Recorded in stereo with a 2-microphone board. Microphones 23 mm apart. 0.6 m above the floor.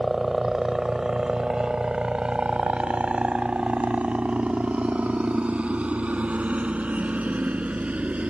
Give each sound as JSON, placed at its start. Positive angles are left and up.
{"t": 0.0, "sound": "a helicopter", "side_deg": -10}